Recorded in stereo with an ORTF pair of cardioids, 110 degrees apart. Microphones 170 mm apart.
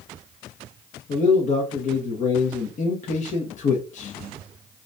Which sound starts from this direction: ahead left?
A man speaking, at 1.1 s.